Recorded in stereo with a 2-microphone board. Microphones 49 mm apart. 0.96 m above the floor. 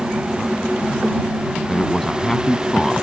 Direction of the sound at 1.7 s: 10° left (ahead or behind).